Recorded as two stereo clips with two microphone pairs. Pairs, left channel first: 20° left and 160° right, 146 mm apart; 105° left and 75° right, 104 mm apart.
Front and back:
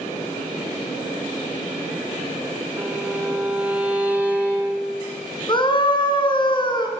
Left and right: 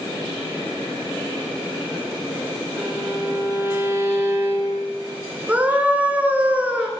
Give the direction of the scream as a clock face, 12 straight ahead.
12 o'clock.